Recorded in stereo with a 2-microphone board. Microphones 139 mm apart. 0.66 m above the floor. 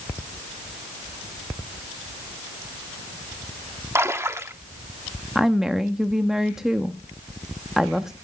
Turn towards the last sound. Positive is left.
turn(degrees=-5)  # may be behind; listen again after turning